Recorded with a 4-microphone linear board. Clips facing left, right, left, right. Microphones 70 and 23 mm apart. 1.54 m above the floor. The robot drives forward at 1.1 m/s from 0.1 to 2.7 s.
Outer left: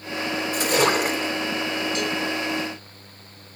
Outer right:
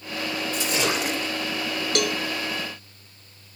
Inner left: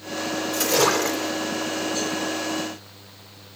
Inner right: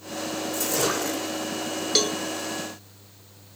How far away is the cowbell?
About 0.6 m.